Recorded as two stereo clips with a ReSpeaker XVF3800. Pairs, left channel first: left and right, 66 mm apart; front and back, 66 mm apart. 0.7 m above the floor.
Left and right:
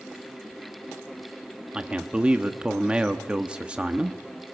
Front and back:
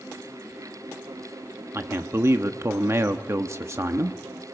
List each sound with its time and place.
1.7 s a man speaking: 160° right, 0.8 m